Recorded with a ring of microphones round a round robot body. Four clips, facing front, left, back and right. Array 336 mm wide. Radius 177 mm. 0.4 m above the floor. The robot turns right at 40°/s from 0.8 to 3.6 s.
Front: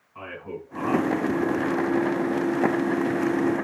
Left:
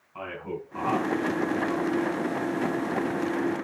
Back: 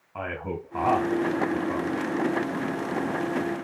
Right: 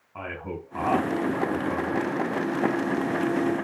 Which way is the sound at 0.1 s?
165° right.